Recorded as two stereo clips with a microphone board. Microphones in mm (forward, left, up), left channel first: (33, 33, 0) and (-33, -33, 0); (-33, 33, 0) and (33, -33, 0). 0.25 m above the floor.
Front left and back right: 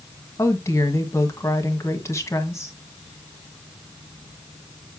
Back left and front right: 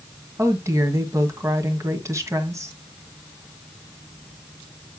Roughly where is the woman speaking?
Ahead.